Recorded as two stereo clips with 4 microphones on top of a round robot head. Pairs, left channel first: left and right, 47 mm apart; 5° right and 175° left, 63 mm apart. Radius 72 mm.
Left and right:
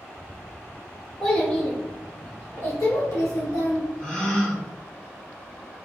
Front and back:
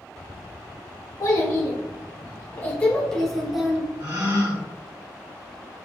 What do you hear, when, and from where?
1.2 s a child speaking: 15° left, 1.5 m; by 3.9 s 95° left, 1.4 m
4.0 s a gasp: 160° left, 1.8 m